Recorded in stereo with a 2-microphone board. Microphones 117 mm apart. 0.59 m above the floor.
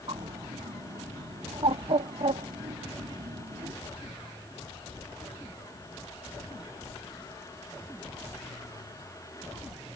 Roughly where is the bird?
Right.